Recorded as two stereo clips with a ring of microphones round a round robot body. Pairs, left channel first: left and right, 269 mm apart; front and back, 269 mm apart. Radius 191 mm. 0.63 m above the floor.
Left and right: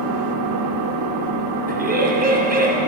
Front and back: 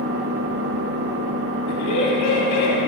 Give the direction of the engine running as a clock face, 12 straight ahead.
4 o'clock.